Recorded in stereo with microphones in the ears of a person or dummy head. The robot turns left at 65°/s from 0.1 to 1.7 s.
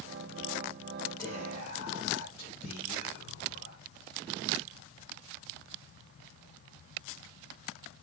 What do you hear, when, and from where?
1.2 s whispering: 165° left, 2 m; by 3.8 s 135° left, 2 m